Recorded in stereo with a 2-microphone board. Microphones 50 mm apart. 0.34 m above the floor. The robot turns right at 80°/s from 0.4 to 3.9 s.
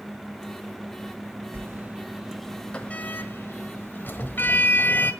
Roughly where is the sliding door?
Right.